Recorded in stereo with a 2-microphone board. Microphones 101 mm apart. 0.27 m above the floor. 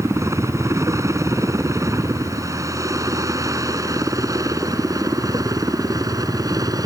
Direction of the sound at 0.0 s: 30° right (ahead or behind).